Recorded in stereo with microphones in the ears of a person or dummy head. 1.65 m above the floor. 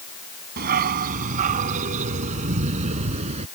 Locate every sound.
0.6 s a dog barking: 45° right (ahead or behind); by 3.5 s 30° right (ahead or behind)